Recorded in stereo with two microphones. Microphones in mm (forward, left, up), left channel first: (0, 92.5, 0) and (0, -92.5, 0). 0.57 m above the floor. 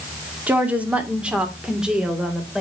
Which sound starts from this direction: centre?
A woman speaking, at 0.5 s.